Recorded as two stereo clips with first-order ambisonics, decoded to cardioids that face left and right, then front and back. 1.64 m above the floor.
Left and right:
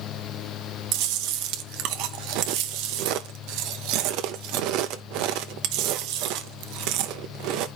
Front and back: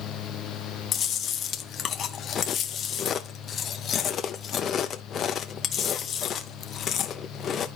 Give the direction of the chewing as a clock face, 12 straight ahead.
2 o'clock.